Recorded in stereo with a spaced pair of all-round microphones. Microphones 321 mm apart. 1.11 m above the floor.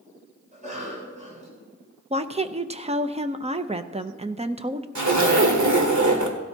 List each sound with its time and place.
0.5 s a cough: 25° right (ahead or behind), 6.5 m
2.1 s a woman speaking: 20° right (ahead or behind), 0.7 m
5.0 s a zipper: 70° right (ahead or behind), 1.7 m